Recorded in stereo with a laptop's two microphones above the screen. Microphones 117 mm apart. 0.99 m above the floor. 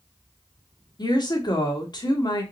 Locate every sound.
1.0 s a woman speaking: 40° left (ahead or behind), 1.2 m